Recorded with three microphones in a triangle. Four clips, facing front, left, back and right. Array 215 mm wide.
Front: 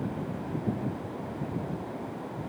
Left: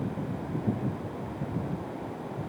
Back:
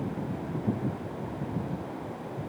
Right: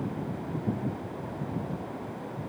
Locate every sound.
Only background noise.